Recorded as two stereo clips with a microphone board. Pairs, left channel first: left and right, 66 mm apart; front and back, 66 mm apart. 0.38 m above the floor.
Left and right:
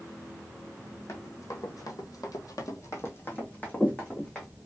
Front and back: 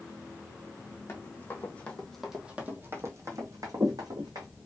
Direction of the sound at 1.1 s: 50° left.